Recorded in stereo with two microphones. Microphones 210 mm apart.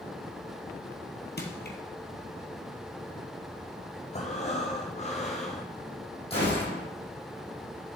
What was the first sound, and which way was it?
Crushing, 55° left (ahead or behind).